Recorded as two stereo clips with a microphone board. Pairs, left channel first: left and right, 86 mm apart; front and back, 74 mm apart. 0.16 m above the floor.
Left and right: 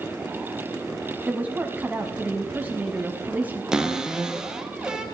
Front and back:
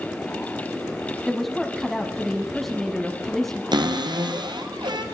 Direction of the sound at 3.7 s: 170° right.